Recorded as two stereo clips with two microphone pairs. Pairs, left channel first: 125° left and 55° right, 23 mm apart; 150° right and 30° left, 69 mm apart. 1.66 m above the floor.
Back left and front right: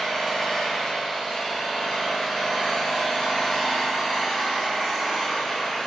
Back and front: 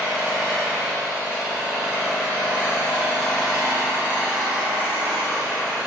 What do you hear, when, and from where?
0.0 s an engine running: 100° left, 1.7 m